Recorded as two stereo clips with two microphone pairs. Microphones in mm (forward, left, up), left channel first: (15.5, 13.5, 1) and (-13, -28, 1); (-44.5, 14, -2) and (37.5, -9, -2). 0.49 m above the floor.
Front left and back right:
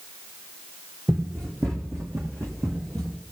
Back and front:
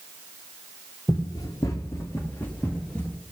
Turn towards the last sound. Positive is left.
turn(degrees=-110)